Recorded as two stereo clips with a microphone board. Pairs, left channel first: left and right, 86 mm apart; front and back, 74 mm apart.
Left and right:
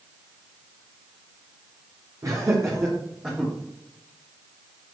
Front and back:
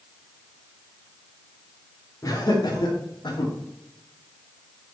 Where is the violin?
No violin in this recording.